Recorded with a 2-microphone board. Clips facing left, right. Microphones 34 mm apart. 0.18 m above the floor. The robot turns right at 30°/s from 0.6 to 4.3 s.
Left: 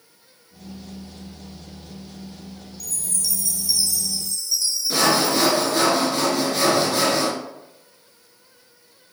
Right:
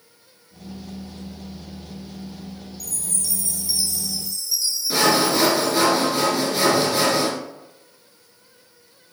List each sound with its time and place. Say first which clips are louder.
2.8 s a chime: left 2 dB; 55° right, 1.3 m; by 5.9 s 10° right, 1.3 m
4.9 s sawing: right 1 dB; 5° right (ahead or behind), 2 m